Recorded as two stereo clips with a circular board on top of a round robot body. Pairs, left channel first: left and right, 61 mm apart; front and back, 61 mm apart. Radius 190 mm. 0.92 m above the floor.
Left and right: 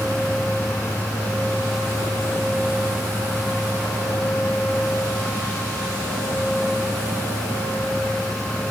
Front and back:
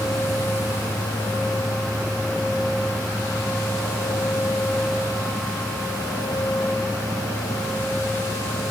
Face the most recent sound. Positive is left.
No sound to turn to.